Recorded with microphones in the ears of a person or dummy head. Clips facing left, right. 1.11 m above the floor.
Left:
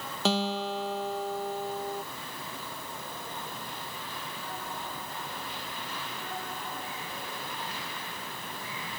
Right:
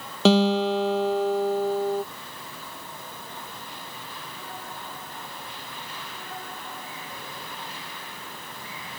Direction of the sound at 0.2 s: 60° right (ahead or behind).